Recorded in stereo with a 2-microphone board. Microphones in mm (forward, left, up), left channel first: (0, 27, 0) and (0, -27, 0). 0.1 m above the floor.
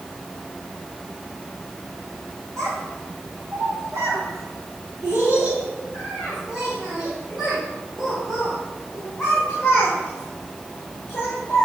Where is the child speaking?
70° right (ahead or behind), 3 m; by 11.7 s 20° left (ahead or behind), 5.5 m.